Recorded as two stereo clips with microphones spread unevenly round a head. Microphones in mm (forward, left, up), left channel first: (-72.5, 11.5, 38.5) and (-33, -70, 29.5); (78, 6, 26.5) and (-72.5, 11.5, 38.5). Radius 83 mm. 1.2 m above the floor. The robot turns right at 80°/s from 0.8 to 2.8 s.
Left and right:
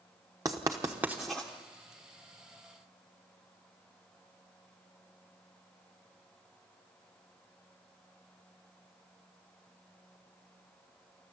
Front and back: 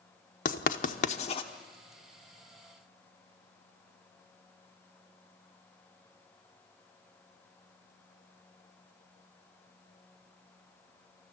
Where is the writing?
5° right, 0.9 m; by 1.5 s 50° left, 0.9 m.